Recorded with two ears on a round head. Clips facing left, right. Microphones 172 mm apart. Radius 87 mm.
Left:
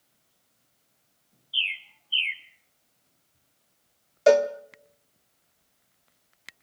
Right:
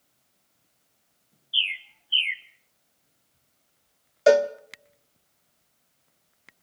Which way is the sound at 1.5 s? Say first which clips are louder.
Right 2 dB; 15° right (ahead or behind).